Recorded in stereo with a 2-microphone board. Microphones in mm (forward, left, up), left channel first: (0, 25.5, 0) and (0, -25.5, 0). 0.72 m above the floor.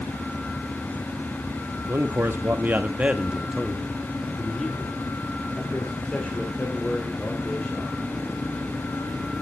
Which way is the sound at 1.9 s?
55° right (ahead or behind).